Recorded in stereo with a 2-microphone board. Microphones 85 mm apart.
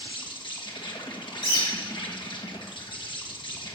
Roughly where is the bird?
Left.